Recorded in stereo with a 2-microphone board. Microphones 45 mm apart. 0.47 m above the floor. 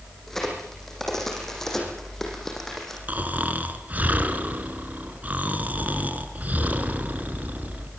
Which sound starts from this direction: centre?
A crack, at 0.3 s.